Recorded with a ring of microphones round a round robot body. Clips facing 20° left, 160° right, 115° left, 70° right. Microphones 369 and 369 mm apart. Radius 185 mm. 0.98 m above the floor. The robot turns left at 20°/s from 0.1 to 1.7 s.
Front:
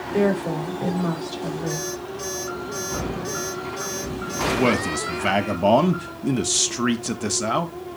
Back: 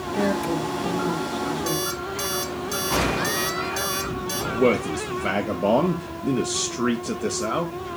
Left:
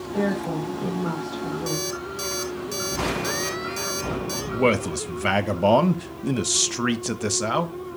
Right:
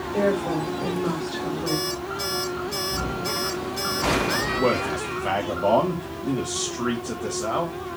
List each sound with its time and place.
0.1 s a woman speaking: 35° left, 5.5 m; by 1.9 s straight ahead, 5.5 m
1.7 s an alarm clock: 170° left, 4.5 m
4.5 s a man speaking: 90° left, 1.2 m